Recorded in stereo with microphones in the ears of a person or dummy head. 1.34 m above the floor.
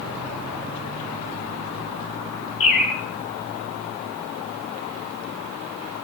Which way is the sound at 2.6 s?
65° left (ahead or behind).